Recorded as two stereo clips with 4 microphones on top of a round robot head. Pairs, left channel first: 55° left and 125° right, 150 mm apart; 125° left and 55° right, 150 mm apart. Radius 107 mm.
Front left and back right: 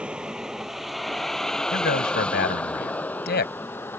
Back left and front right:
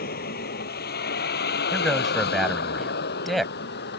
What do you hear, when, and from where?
0.0 s a vehicle: 150° left; by 4.0 s 130° left
1.7 s a man speaking: 35° left